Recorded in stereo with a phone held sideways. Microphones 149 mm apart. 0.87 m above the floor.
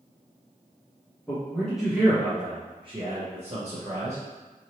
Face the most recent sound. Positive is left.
turn(degrees=-50)  # may be behind; listen again after turning